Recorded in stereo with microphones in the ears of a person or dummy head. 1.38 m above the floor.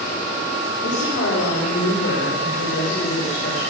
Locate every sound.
0.8 s a woman speaking: 65° left (ahead or behind), 4.5 m; by 3.6 s 60° left (ahead or behind), 8 m